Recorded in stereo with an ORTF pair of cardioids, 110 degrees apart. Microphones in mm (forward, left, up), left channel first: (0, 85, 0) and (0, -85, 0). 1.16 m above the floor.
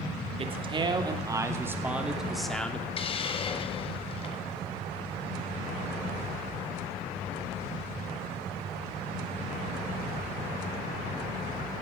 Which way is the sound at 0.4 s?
35° right.